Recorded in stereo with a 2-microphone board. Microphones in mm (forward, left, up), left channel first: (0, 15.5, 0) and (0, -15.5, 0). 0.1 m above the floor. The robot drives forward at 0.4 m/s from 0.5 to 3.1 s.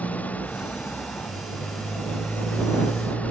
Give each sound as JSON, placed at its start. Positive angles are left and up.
{"t": 0.0, "sound": "a motorcycle", "side_deg": 60}